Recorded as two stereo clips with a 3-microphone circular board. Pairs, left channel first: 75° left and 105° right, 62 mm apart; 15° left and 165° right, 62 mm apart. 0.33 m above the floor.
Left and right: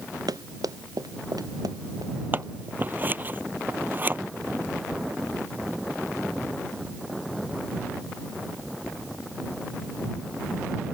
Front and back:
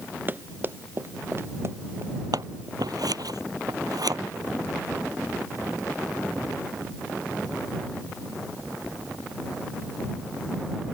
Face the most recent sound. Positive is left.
turn(degrees=-165)